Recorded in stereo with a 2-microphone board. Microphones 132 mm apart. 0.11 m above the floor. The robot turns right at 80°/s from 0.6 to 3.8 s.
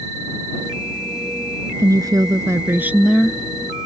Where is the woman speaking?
25° right (ahead or behind); by 3.4 s 5° left (ahead or behind).